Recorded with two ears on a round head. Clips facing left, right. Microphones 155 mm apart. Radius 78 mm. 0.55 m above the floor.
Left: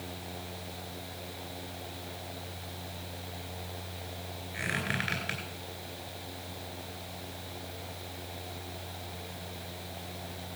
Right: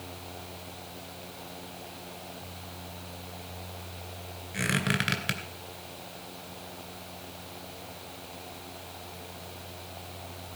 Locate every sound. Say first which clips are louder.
4.5 s a squeak: right 6 dB; 65° right (ahead or behind), 2.5 m